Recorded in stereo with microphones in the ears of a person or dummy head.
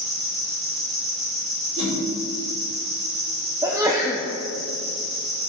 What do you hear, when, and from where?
0.0 s an insect: 35° right (ahead or behind), 1.6 m
1.8 s a whoosh: 45° right (ahead or behind), 3.5 m
3.6 s a sneeze: 20° right (ahead or behind), 0.7 m